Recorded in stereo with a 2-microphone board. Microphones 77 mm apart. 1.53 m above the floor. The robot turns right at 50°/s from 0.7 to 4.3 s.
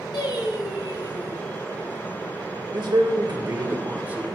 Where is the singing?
95° left, 2.5 m; by 1.4 s 130° left, 2.5 m.